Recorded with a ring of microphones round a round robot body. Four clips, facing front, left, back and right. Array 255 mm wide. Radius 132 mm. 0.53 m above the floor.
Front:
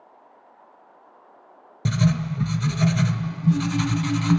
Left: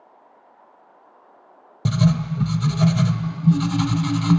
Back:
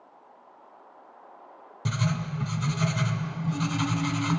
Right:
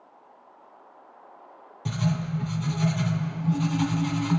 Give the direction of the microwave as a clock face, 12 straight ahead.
No microwave in this recording.